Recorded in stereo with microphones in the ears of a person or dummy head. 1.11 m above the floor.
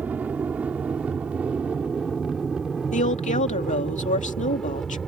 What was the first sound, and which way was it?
An aircraft, 10° right (ahead or behind).